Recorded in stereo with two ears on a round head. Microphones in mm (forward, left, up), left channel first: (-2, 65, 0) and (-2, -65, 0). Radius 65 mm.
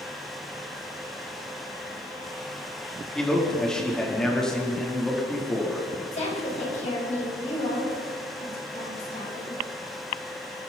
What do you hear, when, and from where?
3.1 s a man speaking: 5° left (ahead or behind), 4 m
6.1 s a woman speaking: 50° left (ahead or behind), 8 m